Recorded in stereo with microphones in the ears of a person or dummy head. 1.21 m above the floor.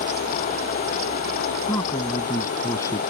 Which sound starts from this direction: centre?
A man speaking, at 1.7 s.